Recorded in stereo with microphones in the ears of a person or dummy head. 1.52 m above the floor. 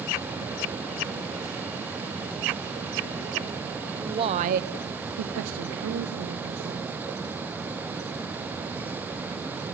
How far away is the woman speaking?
About 0.7 m.